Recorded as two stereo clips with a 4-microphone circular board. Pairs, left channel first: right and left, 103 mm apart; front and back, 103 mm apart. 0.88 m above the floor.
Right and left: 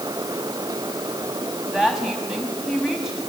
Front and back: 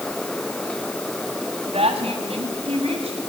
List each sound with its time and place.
1.7 s a woman speaking: 175° left, 5.5 m